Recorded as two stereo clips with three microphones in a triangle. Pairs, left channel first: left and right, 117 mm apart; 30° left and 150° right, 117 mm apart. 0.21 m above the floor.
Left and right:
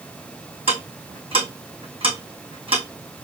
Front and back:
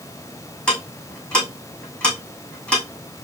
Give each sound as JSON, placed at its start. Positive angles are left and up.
{"t": 0.7, "sound": "ticking", "azimuth_deg": -50, "distance_m": 3.0}